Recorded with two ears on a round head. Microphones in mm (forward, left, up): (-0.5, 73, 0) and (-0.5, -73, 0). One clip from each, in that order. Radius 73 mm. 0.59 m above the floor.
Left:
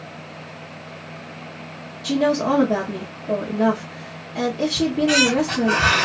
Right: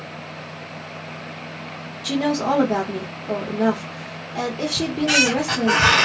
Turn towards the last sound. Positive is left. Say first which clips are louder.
# even
turn(degrees=-25)  # may be behind; listen again after turning